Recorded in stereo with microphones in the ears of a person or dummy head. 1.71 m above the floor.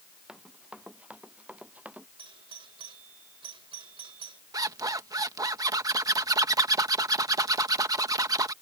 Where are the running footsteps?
Centre (ahead or behind); by 2.1 s 5° right (ahead or behind).